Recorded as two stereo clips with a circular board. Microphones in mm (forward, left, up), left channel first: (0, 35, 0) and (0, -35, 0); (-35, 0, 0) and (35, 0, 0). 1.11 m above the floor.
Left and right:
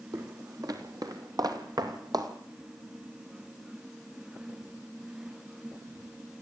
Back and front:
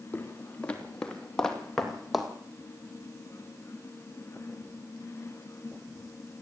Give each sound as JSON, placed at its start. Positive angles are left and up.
{"t": 0.1, "sound": "footsteps", "azimuth_deg": -115, "distance_m": 3.0}